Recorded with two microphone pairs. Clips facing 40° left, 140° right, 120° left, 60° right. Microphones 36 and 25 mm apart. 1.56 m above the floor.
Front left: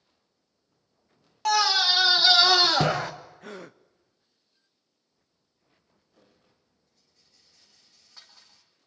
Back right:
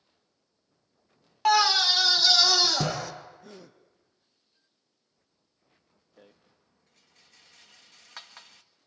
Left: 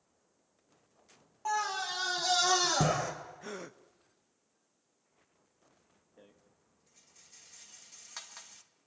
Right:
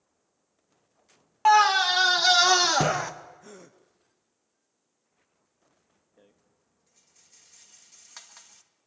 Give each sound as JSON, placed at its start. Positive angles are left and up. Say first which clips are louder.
{"t": 1.4, "sound": "a scream", "louder": "back right 1 dB, right 15 dB", "azimuth_deg": -65, "distance_m": 0.6}
{"t": 3.4, "sound": "a gasp", "louder": "front left 7 dB, left 5 dB", "azimuth_deg": 60, "distance_m": 0.9}
{"t": 6.2, "sound": "a rattle", "louder": "back right 6 dB, left 1 dB", "azimuth_deg": -150, "distance_m": 1.7}